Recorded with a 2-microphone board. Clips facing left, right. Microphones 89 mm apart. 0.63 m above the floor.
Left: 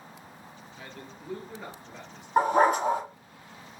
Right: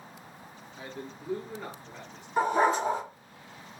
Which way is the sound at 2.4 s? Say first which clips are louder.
Left 3 dB; 60° left (ahead or behind).